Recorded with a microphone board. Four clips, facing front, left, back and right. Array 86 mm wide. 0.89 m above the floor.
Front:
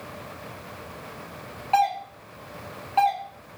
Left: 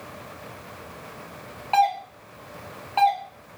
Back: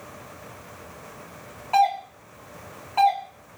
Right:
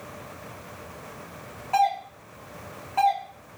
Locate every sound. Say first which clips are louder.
1.7 s a doorbell: left 2 dB, back 2 dB; 65° left, 0.9 m